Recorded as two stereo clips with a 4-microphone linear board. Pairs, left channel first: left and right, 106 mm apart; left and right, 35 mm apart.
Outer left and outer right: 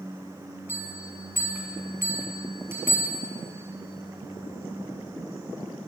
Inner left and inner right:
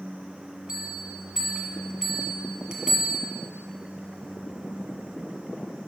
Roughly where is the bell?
Right.